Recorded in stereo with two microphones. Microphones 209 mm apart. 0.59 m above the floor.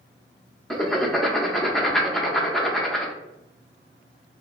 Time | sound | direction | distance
0.7 | writing | centre (ahead or behind) | 0.5 m